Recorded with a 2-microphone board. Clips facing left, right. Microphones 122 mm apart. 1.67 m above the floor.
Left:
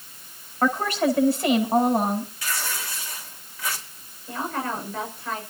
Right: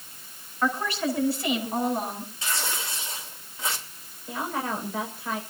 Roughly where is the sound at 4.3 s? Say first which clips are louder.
Left 1 dB; centre.